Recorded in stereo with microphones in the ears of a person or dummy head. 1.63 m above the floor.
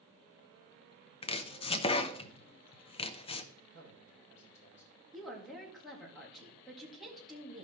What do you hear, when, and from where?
1.2 s chopping: 25° left (ahead or behind), 0.5 m
3.5 s a man speaking: 15° left (ahead or behind), 6 m
5.1 s a woman speaking: centre (ahead or behind), 2 m